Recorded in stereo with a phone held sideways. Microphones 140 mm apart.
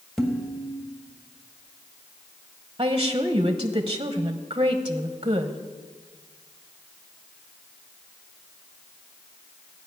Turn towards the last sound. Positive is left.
turn(degrees=-35)  # may be behind; listen again after turning